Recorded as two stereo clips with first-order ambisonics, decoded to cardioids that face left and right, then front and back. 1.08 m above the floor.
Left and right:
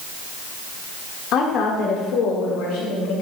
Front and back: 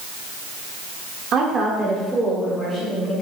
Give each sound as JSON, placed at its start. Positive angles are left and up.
{"t": 1.3, "sound": "a woman speaking", "azimuth_deg": 130, "distance_m": 1.9}